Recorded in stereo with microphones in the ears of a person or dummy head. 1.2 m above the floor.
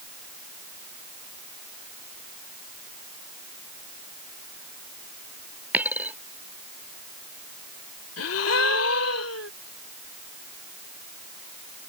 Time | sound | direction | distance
5.7 | a dropped coin | 10° right (ahead or behind) | ?
8.2 | a gasp | 85° left | ?